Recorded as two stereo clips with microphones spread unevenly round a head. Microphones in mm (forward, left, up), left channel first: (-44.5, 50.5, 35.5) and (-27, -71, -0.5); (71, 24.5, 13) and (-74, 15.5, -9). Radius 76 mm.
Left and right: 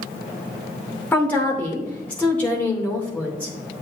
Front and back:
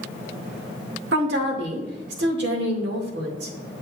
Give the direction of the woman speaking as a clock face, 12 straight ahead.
6 o'clock.